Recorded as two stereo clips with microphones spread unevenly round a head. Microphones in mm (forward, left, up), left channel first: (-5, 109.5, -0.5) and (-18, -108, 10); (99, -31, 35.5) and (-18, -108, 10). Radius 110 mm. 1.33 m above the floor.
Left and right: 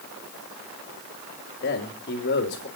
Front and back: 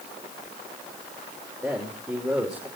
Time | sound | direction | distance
1.6 | a man speaking | 130° left | 3 m